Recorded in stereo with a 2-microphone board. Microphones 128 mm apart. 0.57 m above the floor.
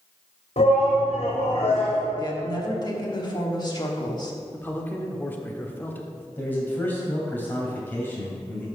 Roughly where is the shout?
Left.